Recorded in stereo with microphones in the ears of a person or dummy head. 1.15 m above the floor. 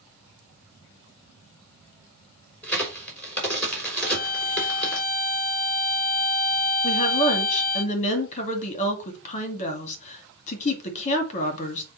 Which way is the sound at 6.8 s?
35° left (ahead or behind).